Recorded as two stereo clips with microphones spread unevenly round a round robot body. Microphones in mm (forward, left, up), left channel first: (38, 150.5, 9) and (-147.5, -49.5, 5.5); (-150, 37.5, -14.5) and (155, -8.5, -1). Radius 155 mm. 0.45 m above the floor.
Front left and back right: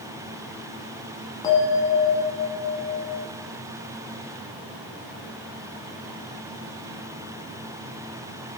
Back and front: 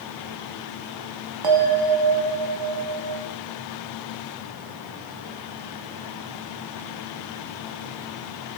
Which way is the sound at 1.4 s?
30° right.